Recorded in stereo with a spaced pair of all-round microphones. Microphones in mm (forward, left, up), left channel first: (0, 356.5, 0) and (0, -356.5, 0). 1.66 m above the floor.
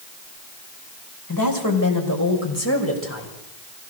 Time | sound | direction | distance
1.3 | a woman speaking | 30° left (ahead or behind) | 6 m